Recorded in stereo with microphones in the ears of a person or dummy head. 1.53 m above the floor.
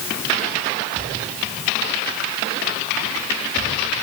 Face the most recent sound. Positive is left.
No sound to turn to.